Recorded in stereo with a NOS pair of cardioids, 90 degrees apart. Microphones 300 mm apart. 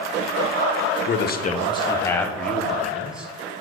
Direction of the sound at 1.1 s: 45° left.